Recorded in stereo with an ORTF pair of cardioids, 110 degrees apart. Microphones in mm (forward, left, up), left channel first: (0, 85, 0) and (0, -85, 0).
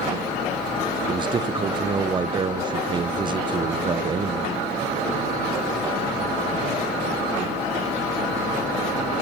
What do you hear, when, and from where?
1.1 s a man speaking: 30° right, 0.6 m